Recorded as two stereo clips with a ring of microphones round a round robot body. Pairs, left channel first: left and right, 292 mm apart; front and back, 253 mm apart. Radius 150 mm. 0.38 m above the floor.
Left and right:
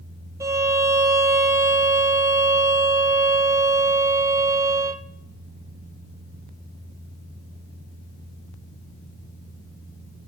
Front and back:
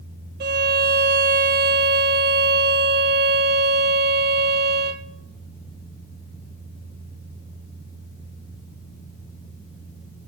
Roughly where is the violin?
Behind.